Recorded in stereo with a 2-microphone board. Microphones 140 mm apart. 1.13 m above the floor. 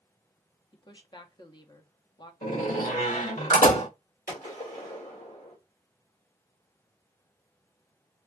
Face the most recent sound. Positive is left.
turn(degrees=75)  # may be behind; listen again after turning